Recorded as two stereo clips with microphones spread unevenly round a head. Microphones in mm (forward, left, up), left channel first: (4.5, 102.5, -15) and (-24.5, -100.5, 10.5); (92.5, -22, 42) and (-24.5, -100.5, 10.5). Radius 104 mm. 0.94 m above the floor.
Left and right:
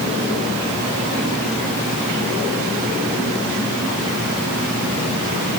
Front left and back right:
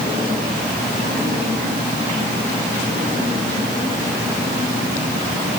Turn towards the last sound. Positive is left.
No sound to turn to.